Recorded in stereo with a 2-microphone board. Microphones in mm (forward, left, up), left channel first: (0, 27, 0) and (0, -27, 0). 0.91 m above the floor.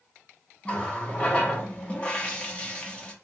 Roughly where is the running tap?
Centre.